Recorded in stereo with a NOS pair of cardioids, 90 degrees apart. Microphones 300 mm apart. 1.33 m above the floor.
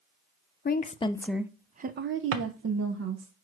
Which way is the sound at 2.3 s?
60° right.